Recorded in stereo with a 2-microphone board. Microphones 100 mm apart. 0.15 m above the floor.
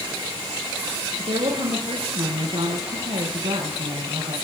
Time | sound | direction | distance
1.2 | a woman speaking | 70° right (ahead or behind) | 3.5 m